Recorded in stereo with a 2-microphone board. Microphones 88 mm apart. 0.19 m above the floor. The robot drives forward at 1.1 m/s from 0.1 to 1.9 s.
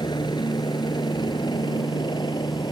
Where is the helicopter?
55° left (ahead or behind).